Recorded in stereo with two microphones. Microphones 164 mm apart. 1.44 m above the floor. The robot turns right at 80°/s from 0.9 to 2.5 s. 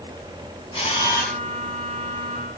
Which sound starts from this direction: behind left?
A camera shutter, at 0.7 s.